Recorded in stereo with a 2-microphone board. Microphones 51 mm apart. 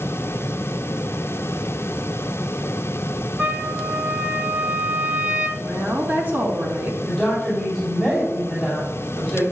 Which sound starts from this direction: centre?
A woman speaking, at 7.0 s.